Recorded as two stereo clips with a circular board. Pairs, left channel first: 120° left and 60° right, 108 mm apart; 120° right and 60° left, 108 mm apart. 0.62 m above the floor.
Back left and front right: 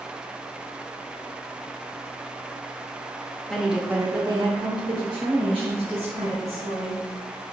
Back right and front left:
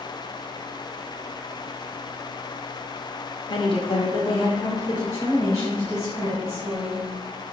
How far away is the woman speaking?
About 1.4 m.